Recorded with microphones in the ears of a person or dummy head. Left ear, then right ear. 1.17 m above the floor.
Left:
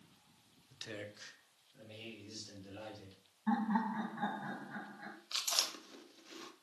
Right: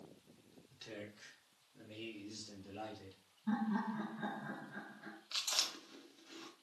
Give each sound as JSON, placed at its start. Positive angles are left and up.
{"t": 0.7, "sound": "a man speaking", "side_deg": 25, "distance_m": 0.5}
{"t": 3.5, "sound": "laughter", "side_deg": 50, "distance_m": 1.2}
{"t": 5.3, "sound": "chewing", "side_deg": 10, "distance_m": 0.6}